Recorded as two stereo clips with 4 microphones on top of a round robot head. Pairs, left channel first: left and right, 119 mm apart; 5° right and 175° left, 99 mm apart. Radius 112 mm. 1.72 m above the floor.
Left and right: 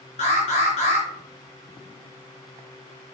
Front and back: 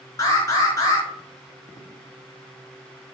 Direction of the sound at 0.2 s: 50° left.